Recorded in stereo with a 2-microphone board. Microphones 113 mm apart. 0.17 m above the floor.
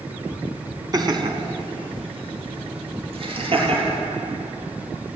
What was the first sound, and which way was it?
Laughter, 35° right (ahead or behind).